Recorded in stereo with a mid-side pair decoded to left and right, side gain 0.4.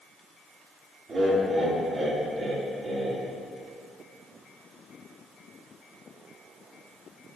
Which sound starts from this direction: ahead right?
Laughter, at 1.1 s.